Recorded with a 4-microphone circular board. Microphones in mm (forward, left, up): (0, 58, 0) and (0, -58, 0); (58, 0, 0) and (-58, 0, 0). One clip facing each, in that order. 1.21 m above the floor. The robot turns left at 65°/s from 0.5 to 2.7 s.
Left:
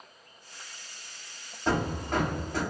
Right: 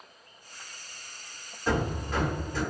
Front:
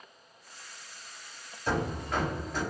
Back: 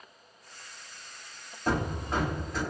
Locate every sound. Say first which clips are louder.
1.7 s hammering: even, back 1 dB; 150° left, 1.4 m; by 2.6 s 90° left, 1.4 m